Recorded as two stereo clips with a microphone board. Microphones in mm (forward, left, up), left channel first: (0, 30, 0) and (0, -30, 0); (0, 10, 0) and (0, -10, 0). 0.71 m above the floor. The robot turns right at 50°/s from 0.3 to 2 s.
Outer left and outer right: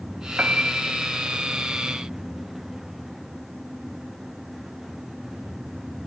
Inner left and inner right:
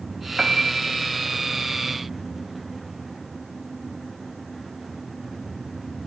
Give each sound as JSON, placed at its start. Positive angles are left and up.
{"t": 0.4, "sound": "a piano", "azimuth_deg": -25, "distance_m": 1.5}